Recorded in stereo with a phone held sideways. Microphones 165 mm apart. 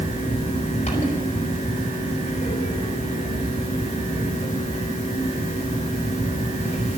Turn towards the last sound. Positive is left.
turn(degrees=45)  # may be behind; listen again after turning